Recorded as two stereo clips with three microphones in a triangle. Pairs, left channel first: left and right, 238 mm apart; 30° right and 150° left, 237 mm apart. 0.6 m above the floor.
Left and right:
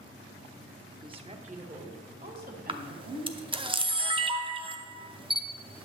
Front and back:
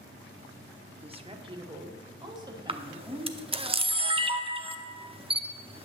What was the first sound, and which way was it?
A woman speaking, 155° right.